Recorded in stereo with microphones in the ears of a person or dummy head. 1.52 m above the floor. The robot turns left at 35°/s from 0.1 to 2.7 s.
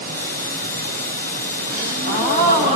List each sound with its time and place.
1.7 s a gasp: 75° right, 1.2 m; by 2.8 s 110° right, 1.2 m